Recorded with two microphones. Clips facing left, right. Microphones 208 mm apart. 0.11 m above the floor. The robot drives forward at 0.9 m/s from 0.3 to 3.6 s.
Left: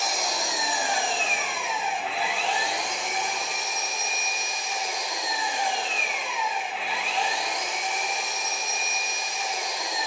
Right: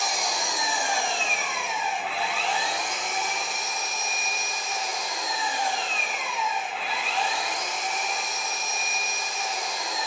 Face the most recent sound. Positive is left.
turn(degrees=0)  # may be behind; listen again after turning